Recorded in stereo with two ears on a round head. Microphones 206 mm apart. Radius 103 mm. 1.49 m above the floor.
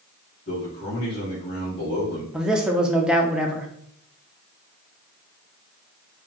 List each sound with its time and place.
0.5 s a man speaking: 30° left (ahead or behind), 1.7 m
2.3 s a man speaking: 5° right (ahead or behind), 0.7 m